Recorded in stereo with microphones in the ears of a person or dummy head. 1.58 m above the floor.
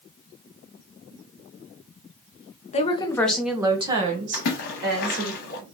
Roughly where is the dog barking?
No dog barking in this recording.